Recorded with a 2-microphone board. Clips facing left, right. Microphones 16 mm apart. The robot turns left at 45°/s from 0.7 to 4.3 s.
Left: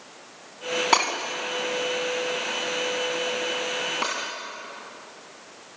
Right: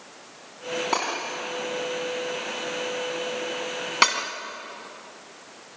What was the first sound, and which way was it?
Breaking glass, 40° left (ahead or behind).